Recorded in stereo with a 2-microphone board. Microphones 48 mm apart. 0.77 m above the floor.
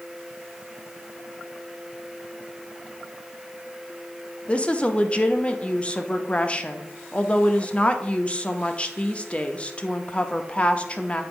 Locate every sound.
4.5 s a woman speaking: 25° left (ahead or behind), 0.6 m